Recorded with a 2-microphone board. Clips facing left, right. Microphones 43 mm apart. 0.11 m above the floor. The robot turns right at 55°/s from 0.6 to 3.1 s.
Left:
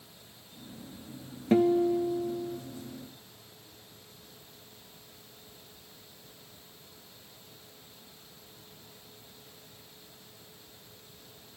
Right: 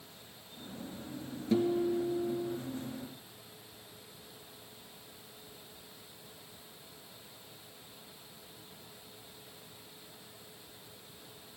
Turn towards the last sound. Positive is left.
turn(degrees=-165)